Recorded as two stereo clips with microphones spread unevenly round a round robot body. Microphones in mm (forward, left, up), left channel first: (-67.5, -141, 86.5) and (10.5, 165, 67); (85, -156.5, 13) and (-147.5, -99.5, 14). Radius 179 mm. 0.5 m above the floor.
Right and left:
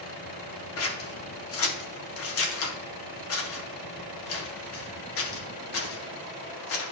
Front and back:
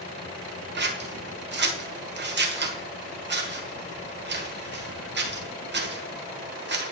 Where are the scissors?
150° right, 1.4 m.